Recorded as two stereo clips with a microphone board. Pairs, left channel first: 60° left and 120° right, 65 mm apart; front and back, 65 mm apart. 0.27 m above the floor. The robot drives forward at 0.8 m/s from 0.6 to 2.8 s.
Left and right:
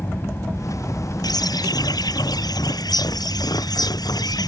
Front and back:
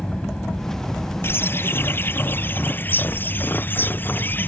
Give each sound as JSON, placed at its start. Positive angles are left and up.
{"t": 0.0, "sound": "an aircraft", "azimuth_deg": 75}
{"t": 1.2, "sound": "a bird", "azimuth_deg": 50}